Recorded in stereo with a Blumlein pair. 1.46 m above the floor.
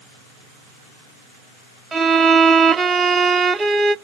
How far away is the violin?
About 0.5 m.